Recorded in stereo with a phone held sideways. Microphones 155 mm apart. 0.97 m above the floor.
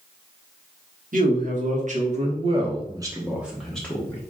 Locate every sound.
1.1 s a man speaking: 60° right (ahead or behind), 1.6 m; by 4.2 s 15° left (ahead or behind), 1.1 m